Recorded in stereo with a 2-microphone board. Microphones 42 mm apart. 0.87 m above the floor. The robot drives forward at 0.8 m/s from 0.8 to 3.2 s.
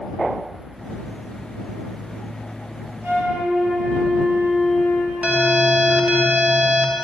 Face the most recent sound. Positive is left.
turn(degrees=-35)  # may be behind; listen again after turning